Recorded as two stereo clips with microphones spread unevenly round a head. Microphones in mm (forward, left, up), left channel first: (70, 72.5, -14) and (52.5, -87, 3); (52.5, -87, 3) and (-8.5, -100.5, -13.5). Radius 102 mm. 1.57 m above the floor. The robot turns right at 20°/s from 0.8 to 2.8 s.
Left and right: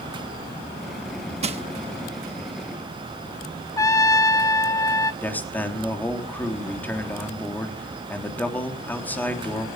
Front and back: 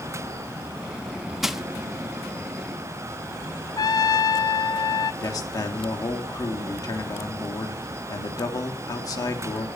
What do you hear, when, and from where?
1.4 s crushing: 70° right, 1.3 m; by 1.6 s 65° right, 1.3 m
3.8 s a trumpet: 10° left, 0.9 m
5.2 s a man speaking: 5° left, 3 m